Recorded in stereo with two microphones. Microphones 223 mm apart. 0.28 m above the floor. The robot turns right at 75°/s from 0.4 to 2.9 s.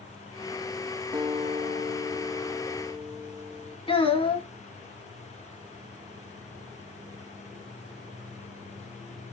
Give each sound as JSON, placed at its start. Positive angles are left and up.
{"t": 1.1, "sound": "a guitar", "azimuth_deg": -160, "distance_m": 1.2}
{"t": 3.9, "sound": "a child speaking", "side_deg": 25, "distance_m": 1.5}